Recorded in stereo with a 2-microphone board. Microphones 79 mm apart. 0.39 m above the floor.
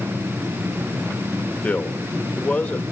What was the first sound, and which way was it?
A man speaking, 20° left (ahead or behind).